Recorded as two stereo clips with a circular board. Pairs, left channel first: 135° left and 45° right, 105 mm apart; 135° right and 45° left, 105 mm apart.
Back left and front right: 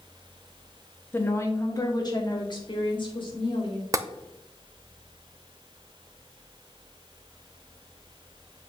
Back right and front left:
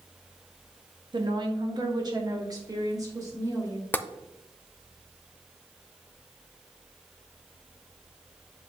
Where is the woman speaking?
70° left, 1.3 m; by 3.8 s 105° left, 3.5 m.